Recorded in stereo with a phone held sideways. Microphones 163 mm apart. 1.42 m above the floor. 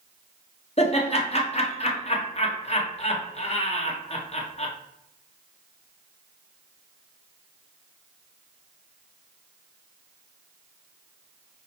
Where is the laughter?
40° left (ahead or behind), 1.1 m.